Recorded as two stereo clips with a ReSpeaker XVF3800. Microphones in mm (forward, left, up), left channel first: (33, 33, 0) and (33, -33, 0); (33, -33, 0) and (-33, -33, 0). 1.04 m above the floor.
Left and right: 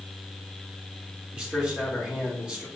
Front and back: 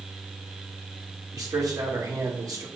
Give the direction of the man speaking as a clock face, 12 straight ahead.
5 o'clock.